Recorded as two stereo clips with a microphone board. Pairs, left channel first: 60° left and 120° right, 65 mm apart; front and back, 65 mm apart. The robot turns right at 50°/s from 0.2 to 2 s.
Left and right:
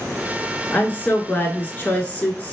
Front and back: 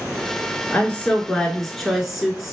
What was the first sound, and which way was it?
A woman speaking, 30° left.